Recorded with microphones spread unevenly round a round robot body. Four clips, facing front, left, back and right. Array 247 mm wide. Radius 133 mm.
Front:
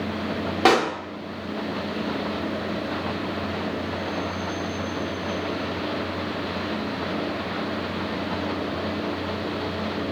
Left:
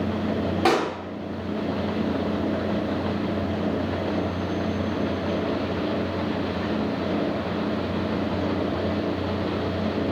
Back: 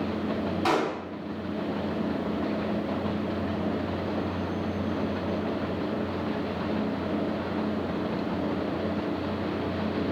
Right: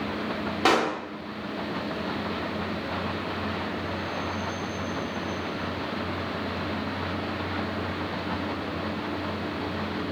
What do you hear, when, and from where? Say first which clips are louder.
0.7 s a pop: even, front 7 dB; straight ahead, 0.7 m